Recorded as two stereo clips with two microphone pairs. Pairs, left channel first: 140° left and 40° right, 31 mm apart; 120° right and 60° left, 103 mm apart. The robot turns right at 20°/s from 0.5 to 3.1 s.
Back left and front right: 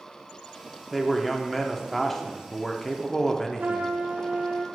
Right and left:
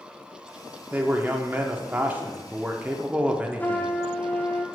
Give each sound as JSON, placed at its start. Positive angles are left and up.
{"t": 0.9, "sound": "a man speaking", "azimuth_deg": 60, "distance_m": 0.7}
{"t": 3.6, "sound": "a trumpet", "azimuth_deg": -50, "distance_m": 0.6}